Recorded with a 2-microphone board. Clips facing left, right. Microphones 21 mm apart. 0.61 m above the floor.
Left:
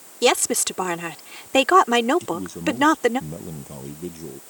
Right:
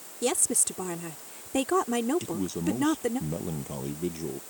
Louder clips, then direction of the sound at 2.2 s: Left 4 dB; 10° right (ahead or behind).